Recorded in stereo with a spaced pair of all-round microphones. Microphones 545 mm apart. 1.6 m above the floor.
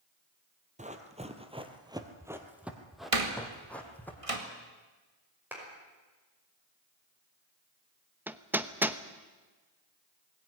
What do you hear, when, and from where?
0.8 s running footsteps: 10° right (ahead or behind), 1.8 m; by 4.1 s 5° left (ahead or behind), 3 m
3.1 s a door slam: 75° right (ahead or behind), 2 m
5.5 s a clap: 5° right (ahead or behind), 5.5 m
8.3 s hammering: 5° right (ahead or behind), 0.8 m